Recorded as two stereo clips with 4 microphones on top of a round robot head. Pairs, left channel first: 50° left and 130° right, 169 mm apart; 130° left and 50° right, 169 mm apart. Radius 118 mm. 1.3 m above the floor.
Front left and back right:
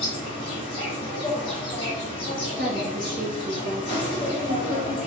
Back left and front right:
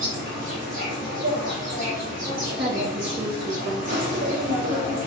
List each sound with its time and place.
0.0 s an insect: 10° right, 1.4 m
2.6 s a woman speaking: 90° right, 1.1 m